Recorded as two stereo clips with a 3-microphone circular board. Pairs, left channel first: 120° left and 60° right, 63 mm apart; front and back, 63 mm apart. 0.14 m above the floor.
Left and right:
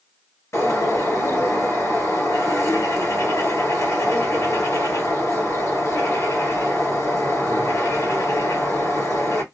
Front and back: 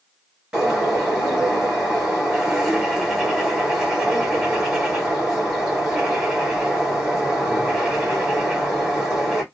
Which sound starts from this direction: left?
A bird, at 0.5 s.